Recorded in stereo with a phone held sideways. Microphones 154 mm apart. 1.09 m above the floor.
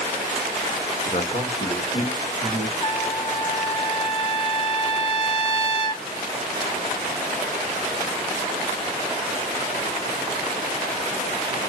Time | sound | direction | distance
1.1 | a man speaking | 35° left (ahead or behind) | 1.0 m
2.8 | a trumpet | 30° left (ahead or behind) | 0.8 m